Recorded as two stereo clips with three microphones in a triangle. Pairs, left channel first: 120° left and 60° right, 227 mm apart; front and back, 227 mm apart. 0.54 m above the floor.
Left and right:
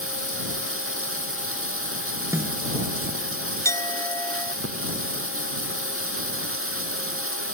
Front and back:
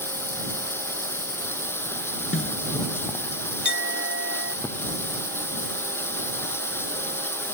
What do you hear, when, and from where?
0.0 s running water: 80° right
2.3 s a snare drum: 20° left
3.6 s a clink: 165° right